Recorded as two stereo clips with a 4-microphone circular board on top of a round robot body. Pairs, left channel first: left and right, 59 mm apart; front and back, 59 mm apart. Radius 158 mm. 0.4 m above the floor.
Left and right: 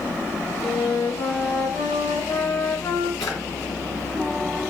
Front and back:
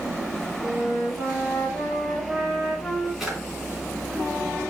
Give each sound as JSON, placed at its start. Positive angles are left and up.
{"t": 0.6, "sound": "a flute", "azimuth_deg": 95, "distance_m": 2.5}
{"t": 3.2, "sound": "a drawer", "azimuth_deg": 95, "distance_m": 3.0}